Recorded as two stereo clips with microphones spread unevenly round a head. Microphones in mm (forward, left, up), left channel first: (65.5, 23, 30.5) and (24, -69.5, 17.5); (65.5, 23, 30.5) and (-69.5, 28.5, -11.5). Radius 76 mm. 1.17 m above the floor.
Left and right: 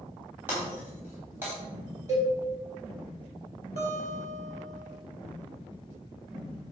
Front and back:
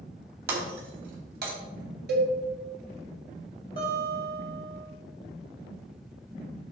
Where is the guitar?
130° right, 3 m.